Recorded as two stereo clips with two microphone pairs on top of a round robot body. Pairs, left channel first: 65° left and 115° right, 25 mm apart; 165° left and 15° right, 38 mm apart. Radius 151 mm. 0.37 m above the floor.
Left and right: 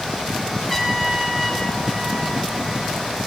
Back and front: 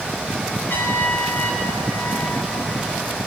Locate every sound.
0.7 s a trumpet: 160° left, 6.5 m